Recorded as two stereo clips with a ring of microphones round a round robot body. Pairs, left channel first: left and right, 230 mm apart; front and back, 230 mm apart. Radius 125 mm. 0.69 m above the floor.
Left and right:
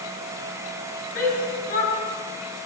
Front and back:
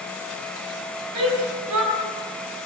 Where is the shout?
150° left, 5 m.